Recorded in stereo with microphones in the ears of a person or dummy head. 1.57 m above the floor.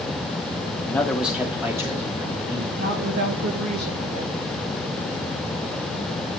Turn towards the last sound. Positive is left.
turn(degrees=-60)  # may be behind; listen again after turning